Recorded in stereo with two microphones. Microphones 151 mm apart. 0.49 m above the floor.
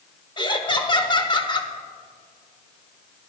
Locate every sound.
0.4 s laughter: 30° left (ahead or behind), 1.1 m